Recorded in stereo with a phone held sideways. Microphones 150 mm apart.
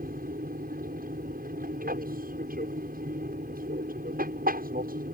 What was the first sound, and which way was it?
An aircraft, 75° right (ahead or behind).